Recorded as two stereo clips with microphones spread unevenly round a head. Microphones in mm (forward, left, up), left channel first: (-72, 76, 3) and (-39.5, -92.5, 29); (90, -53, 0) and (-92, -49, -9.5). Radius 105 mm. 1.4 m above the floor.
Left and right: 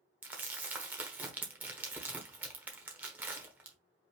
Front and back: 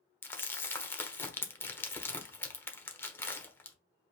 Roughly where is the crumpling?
Ahead right.